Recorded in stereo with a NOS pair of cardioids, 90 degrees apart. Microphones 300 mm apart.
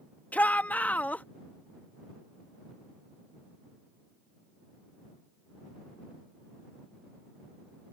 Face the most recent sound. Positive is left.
turn(degrees=5)